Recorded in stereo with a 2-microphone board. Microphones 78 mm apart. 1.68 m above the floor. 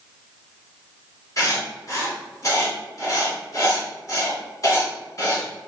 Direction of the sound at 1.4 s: 45° left (ahead or behind).